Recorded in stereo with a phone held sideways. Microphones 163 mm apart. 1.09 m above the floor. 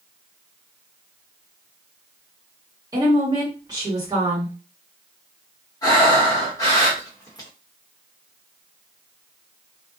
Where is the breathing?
20° left (ahead or behind), 1.0 m.